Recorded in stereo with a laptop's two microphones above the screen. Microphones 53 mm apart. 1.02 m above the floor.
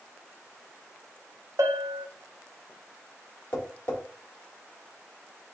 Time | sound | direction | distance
1.6 | a bell | 65° right (ahead or behind) | 0.7 m
3.5 | tapping | 35° left (ahead or behind) | 1.7 m